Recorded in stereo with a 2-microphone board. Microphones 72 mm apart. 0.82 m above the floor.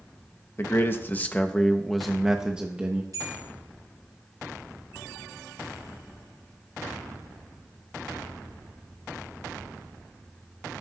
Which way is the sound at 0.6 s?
35° left (ahead or behind).